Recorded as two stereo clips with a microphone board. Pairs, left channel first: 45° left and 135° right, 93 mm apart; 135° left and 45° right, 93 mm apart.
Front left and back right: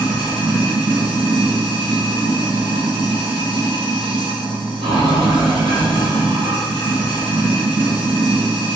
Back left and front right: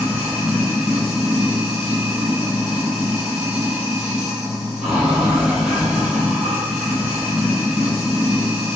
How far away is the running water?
About 1.7 m.